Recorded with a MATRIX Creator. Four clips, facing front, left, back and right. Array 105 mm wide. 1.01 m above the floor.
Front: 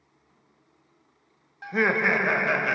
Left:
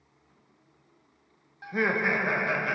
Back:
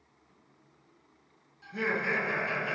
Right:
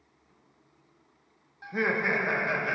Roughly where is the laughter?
Ahead.